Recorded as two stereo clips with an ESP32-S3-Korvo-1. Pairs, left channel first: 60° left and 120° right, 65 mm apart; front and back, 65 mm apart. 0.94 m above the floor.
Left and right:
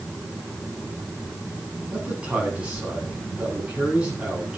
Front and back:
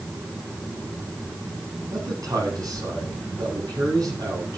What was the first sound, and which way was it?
A man speaking, 170° left.